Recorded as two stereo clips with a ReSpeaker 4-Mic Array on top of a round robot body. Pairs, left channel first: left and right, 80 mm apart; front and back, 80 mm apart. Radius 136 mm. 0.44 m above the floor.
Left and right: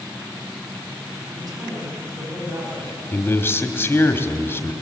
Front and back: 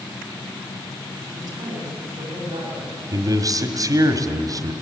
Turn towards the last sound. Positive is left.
turn(degrees=150)